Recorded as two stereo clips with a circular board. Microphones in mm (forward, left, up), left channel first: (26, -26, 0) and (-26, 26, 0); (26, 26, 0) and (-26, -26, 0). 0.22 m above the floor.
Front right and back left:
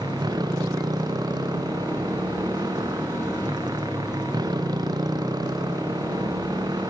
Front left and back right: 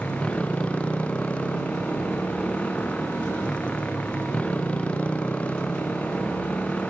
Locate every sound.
0.0 s a motorcycle: 120° left